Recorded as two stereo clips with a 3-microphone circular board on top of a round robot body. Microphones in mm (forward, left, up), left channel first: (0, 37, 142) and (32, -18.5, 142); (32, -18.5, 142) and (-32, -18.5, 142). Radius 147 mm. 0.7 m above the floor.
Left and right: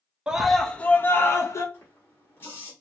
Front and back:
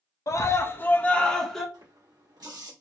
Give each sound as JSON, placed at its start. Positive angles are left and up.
{"t": 0.3, "sound": "a scream", "azimuth_deg": 15, "distance_m": 0.8}
{"t": 1.7, "sound": "a running tap", "azimuth_deg": 175, "distance_m": 1.5}